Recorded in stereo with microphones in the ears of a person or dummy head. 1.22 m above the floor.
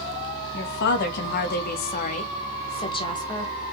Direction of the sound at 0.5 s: 65° left (ahead or behind).